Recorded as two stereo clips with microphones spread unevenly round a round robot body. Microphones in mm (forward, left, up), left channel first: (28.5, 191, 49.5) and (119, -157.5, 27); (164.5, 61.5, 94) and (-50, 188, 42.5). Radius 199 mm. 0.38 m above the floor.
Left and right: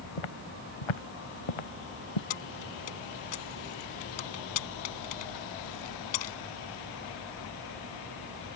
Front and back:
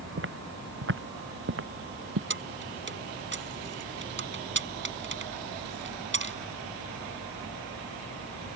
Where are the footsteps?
110° left; by 2.2 s 115° left.